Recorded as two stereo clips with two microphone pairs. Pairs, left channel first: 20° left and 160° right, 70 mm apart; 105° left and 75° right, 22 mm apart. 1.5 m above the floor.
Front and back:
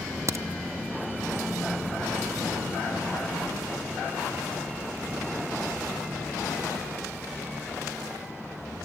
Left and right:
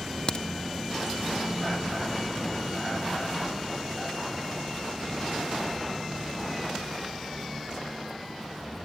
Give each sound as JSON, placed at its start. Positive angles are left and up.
{"t": 0.3, "sound": "a crack", "azimuth_deg": 150, "distance_m": 0.8}